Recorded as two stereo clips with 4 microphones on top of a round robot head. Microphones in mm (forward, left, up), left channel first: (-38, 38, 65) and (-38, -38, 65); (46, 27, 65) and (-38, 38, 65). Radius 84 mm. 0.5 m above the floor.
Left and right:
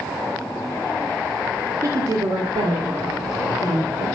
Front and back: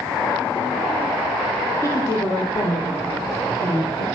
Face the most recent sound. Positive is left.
turn(degrees=-55)